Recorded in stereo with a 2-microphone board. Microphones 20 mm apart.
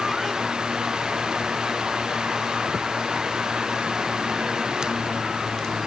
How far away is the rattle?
I don't hear a rattle.